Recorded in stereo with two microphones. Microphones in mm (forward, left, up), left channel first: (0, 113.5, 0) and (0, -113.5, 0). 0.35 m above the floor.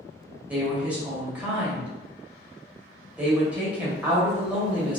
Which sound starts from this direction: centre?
A woman speaking, at 0.5 s.